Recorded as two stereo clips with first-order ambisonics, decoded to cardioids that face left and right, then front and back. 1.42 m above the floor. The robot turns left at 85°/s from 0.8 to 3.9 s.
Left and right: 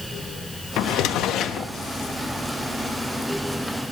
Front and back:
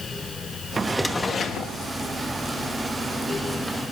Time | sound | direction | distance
0.8 | a drawer | 110° left | 0.9 m